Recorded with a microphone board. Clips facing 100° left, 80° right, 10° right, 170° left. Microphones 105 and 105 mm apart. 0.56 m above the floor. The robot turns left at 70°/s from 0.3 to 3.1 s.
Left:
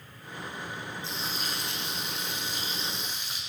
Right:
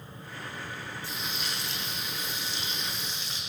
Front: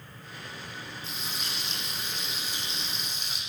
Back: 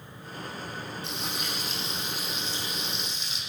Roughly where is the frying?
Behind.